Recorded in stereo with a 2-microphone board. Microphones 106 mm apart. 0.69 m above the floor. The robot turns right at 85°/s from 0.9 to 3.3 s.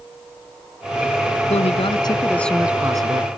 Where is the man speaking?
90° left; by 3.4 s 115° right.